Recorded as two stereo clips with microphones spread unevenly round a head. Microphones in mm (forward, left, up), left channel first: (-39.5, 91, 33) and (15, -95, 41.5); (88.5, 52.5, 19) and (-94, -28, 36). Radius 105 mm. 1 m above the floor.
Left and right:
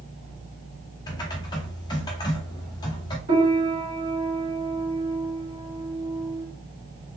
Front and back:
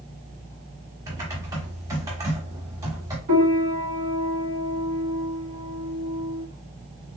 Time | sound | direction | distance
1.1 | typing on a keyboard | 160° left | 0.9 m
3.3 | a piano | 125° right | 2 m